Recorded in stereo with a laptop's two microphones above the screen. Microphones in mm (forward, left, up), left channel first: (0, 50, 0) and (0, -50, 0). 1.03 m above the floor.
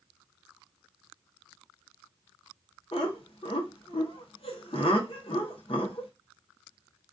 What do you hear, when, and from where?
2.9 s laughter: 65° left (ahead or behind), 0.7 m